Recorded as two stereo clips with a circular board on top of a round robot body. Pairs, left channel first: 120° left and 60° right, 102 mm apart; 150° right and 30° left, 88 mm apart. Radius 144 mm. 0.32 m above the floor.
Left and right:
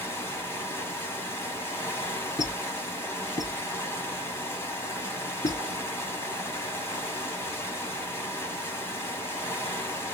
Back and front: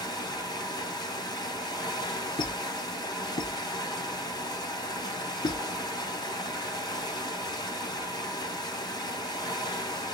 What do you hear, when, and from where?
0.0 s running water: straight behind, 2 m
2.4 s a squeak: 175° left, 0.8 m